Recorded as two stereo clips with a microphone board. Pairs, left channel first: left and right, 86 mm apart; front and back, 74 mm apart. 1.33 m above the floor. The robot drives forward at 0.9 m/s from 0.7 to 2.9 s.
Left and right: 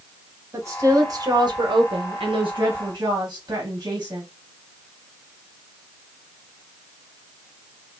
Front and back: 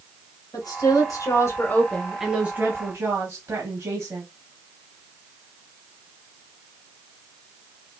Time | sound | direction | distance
0.5 | a woman speaking | 35° right | 1.6 m